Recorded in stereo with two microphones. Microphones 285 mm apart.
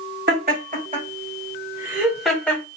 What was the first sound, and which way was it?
Laughter, 35° right (ahead or behind).